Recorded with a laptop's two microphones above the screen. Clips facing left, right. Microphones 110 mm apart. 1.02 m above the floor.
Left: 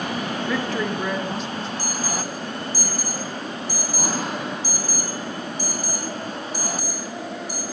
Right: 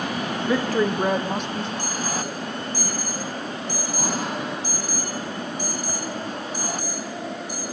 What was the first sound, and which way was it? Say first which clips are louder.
A woman speaking: right 5 dB; 30° right (ahead or behind).